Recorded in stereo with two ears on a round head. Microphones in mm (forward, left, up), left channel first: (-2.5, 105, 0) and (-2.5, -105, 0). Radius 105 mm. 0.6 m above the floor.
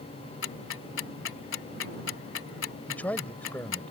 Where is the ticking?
55° left (ahead or behind).